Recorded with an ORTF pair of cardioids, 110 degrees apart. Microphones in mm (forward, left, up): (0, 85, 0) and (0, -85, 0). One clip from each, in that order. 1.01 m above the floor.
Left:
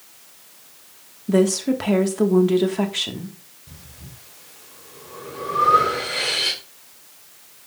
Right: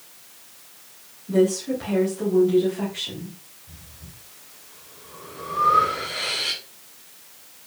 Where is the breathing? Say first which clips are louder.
Left 4 dB; 65° left, 3 m.